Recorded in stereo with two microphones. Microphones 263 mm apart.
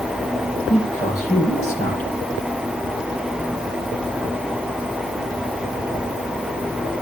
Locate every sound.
0.7 s a man speaking: 25° left (ahead or behind), 6.5 m